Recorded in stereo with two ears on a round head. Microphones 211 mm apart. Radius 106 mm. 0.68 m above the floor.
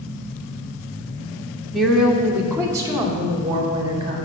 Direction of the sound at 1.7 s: Centre (ahead or behind).